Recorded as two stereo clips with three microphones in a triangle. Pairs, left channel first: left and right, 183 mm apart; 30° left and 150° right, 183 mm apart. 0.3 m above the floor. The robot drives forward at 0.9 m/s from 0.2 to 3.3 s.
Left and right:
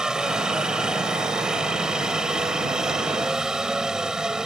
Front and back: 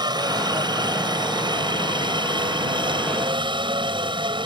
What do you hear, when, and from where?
0.0 s a helicopter: 170° right